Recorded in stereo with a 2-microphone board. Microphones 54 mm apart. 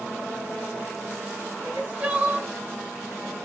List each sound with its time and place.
1.6 s crying: 20° right (ahead or behind), 2.5 m